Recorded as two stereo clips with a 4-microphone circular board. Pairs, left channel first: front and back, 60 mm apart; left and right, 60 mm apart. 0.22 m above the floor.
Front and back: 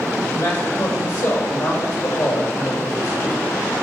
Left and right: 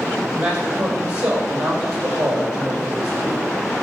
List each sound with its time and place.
0.3 s a man speaking: 20° right, 7.5 m